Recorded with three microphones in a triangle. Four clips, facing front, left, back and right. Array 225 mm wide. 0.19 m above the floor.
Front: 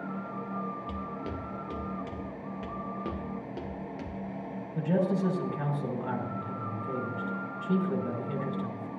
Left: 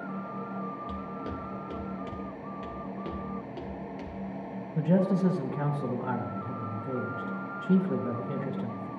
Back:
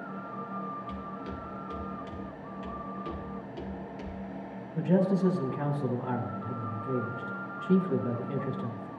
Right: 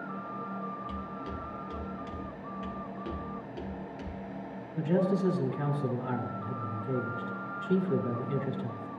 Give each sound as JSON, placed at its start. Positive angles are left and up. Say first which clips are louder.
{"t": 0.9, "sound": "footsteps", "louder": "left 2 dB, front 2 dB", "azimuth_deg": 35, "distance_m": 1.5}
{"t": 2.6, "sound": "footsteps", "louder": "left 1 dB, front 1 dB", "azimuth_deg": 15, "distance_m": 2.0}
{"t": 4.8, "sound": "a man speaking", "louder": "left 2 dB, back 2 dB", "azimuth_deg": 85, "distance_m": 2.0}